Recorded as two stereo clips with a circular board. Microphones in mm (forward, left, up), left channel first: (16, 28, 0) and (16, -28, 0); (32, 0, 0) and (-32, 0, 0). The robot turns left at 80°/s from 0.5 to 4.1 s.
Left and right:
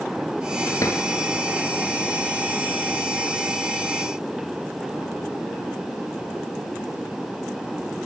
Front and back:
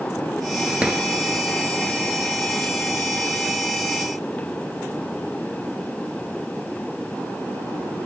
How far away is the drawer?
About 1.4 m.